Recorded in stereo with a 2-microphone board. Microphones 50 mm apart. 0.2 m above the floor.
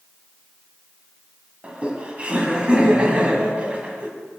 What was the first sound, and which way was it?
Laughter, 25° right (ahead or behind).